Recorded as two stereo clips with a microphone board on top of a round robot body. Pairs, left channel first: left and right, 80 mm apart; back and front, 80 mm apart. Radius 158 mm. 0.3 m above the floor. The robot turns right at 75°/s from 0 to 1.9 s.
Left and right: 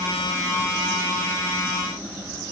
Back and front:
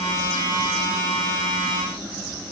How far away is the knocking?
No knocking in this recording.